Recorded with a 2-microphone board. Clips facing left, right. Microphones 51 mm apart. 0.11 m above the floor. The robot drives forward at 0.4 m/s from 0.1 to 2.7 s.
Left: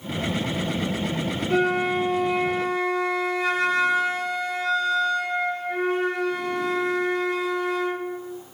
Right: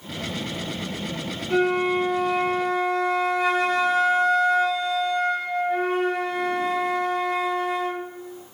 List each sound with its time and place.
1.5 s a flute: centre (ahead or behind), 1.3 m